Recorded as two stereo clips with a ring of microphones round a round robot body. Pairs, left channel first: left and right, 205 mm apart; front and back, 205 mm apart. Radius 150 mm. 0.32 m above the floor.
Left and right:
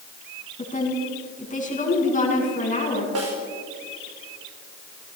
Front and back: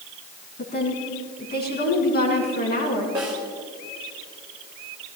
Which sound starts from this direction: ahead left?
A woman speaking, at 0.6 s.